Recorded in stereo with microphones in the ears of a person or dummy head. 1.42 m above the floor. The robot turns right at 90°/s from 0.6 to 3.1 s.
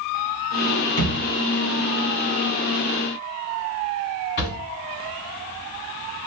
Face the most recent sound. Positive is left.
turn(degrees=40)  # may be behind; listen again after turning